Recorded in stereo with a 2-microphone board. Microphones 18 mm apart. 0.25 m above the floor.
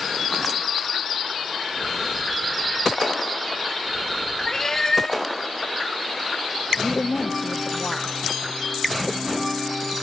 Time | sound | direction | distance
4.5 | a cat meowing | 30° left (ahead or behind) | ?
6.8 | a woman speaking | 80° left | ?